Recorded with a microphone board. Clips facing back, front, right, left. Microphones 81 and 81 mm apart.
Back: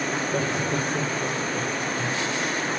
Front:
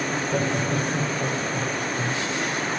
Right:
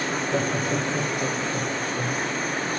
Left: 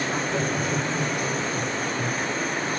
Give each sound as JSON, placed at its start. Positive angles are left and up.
{"t": 0.1, "sound": "laughter", "azimuth_deg": -50, "distance_m": 0.8}